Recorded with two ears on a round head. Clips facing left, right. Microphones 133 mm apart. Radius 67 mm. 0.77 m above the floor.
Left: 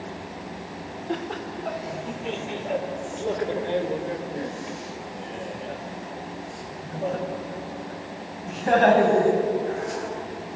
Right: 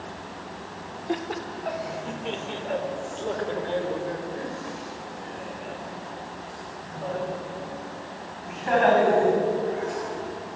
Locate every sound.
1.1 s laughter: 10° right (ahead or behind), 2 m; by 10.6 s 45° left (ahead or behind), 6 m